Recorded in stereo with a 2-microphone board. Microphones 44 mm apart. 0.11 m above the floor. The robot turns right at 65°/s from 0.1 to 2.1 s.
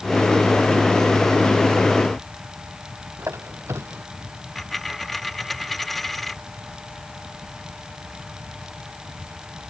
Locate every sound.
3.2 s a squeak: 85° right
4.5 s a dropped coin: centre (ahead or behind)